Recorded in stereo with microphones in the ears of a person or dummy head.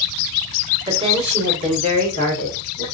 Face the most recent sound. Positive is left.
turn(degrees=-55)  # may be behind; listen again after turning